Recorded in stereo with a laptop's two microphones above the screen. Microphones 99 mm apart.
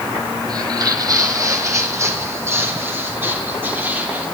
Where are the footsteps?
45° right (ahead or behind), 1.6 m; by 4.2 s 20° right (ahead or behind), 3.5 m.